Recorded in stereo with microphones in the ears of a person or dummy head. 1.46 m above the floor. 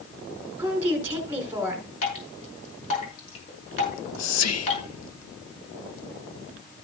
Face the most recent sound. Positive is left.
turn(degrees=80)